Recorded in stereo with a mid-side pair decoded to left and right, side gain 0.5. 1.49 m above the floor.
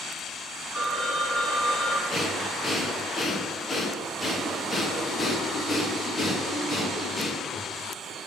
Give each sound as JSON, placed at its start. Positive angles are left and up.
{"t": 0.7, "sound": "a phone ringing", "azimuth_deg": 45, "distance_m": 1.4}
{"t": 2.1, "sound": "breathing", "azimuth_deg": 35, "distance_m": 1.3}